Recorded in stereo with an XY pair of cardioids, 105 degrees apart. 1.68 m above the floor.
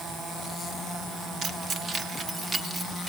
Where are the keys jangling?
60° right, 2 m; by 3.1 s 30° right, 4 m.